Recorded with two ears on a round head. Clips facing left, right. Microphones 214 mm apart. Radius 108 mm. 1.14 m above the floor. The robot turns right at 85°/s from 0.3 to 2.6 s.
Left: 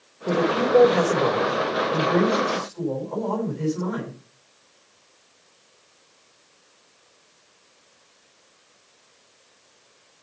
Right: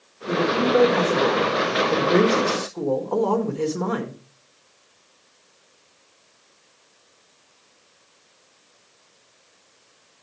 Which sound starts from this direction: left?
A man speaking, at 0.3 s.